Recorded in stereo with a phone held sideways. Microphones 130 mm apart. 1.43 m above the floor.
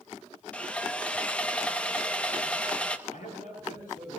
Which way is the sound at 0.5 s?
10° left (ahead or behind).